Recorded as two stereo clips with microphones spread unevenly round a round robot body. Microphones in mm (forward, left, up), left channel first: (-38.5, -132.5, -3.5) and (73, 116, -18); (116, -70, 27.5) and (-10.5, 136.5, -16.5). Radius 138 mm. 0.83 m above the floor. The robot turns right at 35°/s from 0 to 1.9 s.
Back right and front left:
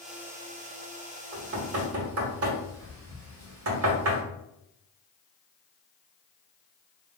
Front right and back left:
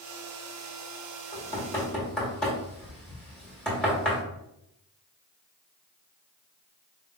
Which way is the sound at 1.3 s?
5° left.